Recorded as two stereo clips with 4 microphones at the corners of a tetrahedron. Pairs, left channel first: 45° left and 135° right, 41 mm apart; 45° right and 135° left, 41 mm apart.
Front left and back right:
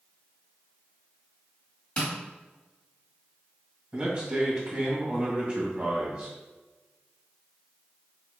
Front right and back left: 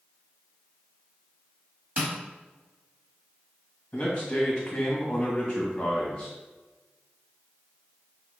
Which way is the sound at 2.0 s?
100° left.